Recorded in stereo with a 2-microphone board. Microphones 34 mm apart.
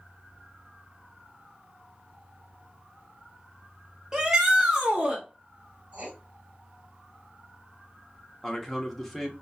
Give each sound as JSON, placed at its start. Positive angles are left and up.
{"t": 4.1, "sound": "a shout", "side_deg": -20, "distance_m": 1.2}
{"t": 5.9, "sound": "writing", "side_deg": -40, "distance_m": 2.0}
{"t": 8.4, "sound": "a man speaking", "side_deg": 5, "distance_m": 1.0}